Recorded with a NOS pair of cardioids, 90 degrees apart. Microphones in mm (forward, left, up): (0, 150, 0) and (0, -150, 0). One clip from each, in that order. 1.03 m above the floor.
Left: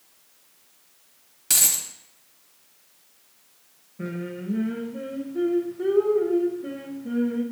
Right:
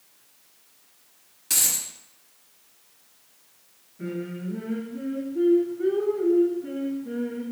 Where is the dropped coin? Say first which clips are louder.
Left 2 dB; 45° left, 0.8 m.